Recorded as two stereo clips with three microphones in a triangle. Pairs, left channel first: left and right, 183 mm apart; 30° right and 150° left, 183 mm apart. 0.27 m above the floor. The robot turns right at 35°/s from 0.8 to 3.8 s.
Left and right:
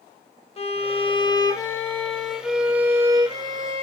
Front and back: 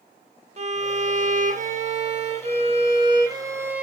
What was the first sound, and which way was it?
A violin, 125° left.